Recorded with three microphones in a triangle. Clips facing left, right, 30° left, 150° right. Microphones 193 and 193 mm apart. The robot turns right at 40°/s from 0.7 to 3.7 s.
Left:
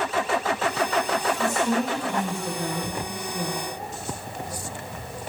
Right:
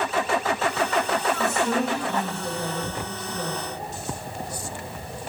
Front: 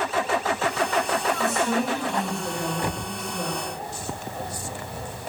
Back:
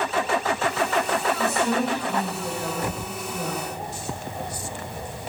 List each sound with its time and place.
1.4 s a woman speaking: 125° right, 0.9 m; by 3.6 s 35° right, 0.9 m